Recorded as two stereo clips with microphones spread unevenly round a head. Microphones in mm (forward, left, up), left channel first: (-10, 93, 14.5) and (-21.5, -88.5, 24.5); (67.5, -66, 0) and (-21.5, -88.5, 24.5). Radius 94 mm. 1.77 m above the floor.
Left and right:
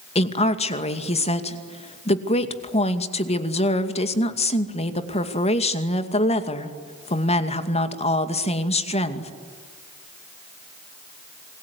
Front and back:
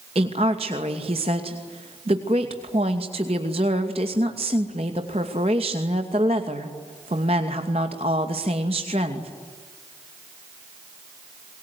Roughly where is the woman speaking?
Behind left.